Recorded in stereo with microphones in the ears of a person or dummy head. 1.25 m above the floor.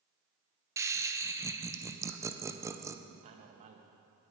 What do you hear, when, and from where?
0.8 s laughter: 15° right (ahead or behind), 0.6 m
3.2 s a man speaking: 35° right (ahead or behind), 1.2 m